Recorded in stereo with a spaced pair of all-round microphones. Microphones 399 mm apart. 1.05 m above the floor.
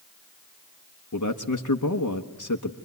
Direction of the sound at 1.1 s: 50° left (ahead or behind).